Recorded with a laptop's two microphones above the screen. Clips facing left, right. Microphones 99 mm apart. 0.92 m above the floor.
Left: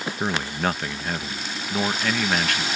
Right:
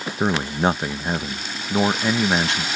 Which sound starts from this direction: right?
A man speaking, at 0.2 s.